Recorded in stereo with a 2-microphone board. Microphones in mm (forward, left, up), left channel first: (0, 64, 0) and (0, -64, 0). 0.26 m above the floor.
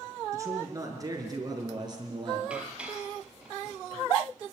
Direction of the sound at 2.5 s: 10° right (ahead or behind).